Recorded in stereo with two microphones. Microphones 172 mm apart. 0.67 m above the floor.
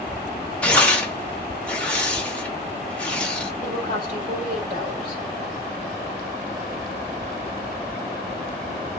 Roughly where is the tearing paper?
Centre.